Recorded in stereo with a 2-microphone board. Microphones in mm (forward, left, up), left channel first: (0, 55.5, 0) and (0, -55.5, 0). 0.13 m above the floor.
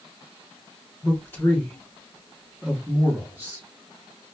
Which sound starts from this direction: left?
A man speaking, at 1.0 s.